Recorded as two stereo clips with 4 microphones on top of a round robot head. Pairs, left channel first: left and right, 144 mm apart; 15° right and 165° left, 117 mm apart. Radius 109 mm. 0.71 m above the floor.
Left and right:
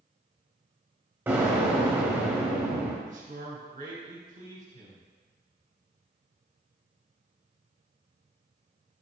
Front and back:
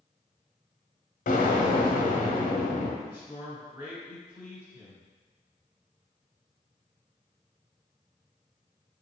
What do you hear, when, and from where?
1.3 s an explosion: 15° right, 1.1 m
3.0 s a man speaking: 120° right, 2.5 m